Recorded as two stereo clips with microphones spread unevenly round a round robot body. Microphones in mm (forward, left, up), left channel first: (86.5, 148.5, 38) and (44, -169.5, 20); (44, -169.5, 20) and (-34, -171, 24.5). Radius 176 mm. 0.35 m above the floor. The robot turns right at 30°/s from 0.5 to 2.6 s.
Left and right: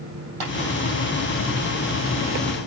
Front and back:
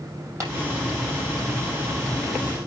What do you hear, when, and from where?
0.4 s tapping: 125° right, 4.5 m